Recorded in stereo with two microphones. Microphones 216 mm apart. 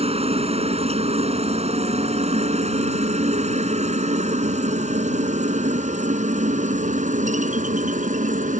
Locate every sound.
0.0 s a helicopter: 30° right (ahead or behind); by 8.6 s 35° right (ahead or behind)